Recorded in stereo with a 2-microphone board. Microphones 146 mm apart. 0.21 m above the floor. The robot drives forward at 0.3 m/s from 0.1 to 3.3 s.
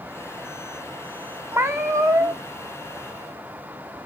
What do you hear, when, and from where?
1.5 s a cat meowing: 20° right (ahead or behind), 0.9 m; by 2.4 s 25° right (ahead or behind), 0.6 m